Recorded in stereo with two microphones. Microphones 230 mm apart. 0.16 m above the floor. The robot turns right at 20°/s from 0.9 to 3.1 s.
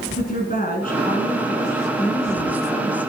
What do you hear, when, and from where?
0.2 s a woman speaking: 85° left, 1.8 m; by 3.0 s 125° left, 1.8 m